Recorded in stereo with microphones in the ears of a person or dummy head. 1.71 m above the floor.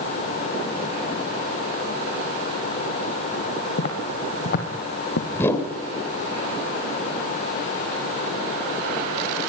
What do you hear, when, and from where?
3.8 s footsteps: 40° left (ahead or behind), 3 m; by 5.2 s 55° left (ahead or behind), 3.5 m
5.3 s a whoosh: 20° left (ahead or behind), 3.5 m